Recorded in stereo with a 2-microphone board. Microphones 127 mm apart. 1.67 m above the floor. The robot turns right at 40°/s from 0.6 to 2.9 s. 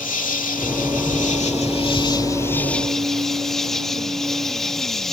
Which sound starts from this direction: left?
An insect, at 0.0 s.